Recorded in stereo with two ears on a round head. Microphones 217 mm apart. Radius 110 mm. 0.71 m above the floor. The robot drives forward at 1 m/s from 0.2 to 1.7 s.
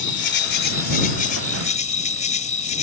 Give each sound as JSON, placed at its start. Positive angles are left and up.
{"t": 0.0, "sound": "an insect", "side_deg": 50}